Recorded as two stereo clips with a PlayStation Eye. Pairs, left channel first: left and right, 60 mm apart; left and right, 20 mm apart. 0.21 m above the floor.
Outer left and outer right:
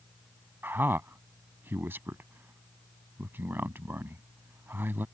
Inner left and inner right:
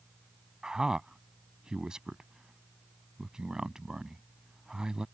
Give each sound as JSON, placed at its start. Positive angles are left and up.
{"t": 0.6, "sound": "a man speaking", "side_deg": -40}